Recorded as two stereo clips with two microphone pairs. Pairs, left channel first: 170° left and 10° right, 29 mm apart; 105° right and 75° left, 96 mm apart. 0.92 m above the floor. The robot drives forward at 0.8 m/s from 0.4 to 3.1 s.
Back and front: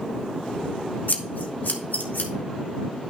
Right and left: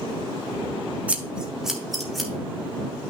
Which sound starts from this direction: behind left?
Scissors, at 1.1 s.